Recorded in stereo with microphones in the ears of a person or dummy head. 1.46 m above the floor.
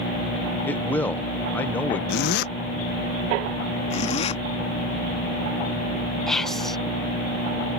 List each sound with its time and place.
0.7 s a man speaking: 5° left (ahead or behind)
2.1 s a zipper: 65° left (ahead or behind)
3.9 s a zipper: 40° left (ahead or behind)
6.3 s whispering: centre (ahead or behind)